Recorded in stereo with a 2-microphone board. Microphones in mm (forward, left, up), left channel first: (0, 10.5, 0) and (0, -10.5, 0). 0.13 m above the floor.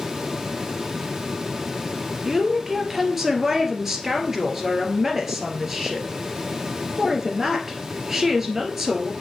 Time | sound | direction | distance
2.2 | a woman speaking | 15° right (ahead or behind) | 1.8 m